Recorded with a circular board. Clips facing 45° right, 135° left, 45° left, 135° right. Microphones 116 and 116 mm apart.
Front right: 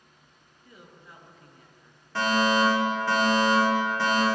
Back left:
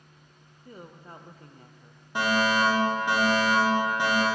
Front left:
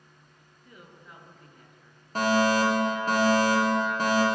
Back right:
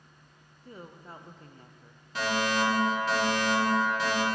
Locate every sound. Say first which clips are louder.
0.7 s a woman speaking: back left 6 dB, back right 5 dB; straight behind, 0.5 m
2.1 s a fire alarm: front right 1 dB, front left 6 dB; 65° left, 1.5 m